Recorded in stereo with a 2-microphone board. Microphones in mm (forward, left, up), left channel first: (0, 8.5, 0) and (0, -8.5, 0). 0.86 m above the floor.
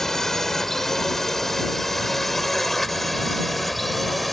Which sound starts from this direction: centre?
A drone, at 0.0 s.